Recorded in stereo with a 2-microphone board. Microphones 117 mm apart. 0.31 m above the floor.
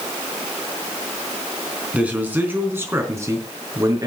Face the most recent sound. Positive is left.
turn(degrees=-30)  # may be behind; listen again after turning